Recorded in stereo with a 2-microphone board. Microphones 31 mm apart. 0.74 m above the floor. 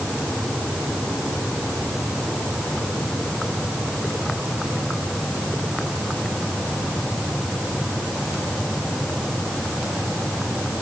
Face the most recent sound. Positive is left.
No sound to turn to.